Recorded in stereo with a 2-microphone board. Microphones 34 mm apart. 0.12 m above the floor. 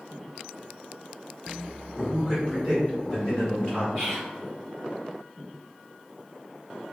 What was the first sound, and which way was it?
A man speaking, 10° left (ahead or behind).